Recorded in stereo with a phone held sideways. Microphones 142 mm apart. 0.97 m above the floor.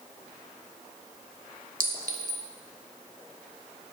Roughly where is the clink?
Right.